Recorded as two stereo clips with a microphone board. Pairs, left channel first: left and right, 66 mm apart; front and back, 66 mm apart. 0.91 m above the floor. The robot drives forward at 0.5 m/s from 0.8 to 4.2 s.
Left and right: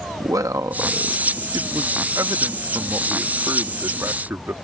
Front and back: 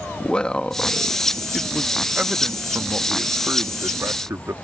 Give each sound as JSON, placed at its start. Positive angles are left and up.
{"t": 0.2, "sound": "a man speaking", "azimuth_deg": -75}